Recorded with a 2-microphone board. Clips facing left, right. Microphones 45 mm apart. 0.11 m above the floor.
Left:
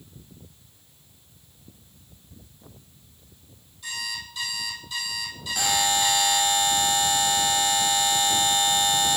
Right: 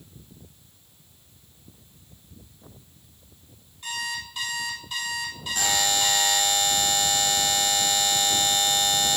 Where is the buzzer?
10° left (ahead or behind), 0.7 m.